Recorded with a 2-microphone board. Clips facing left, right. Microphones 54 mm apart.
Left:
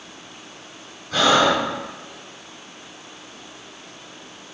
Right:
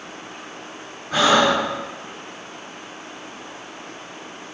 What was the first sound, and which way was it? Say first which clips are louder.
Breathing: right 1 dB; 20° right (ahead or behind).